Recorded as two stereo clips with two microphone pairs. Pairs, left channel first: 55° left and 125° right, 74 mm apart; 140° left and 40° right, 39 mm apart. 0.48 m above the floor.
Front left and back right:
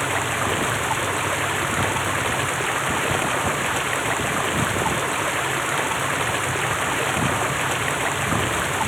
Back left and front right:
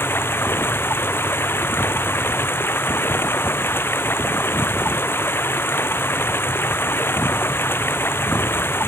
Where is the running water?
145° left.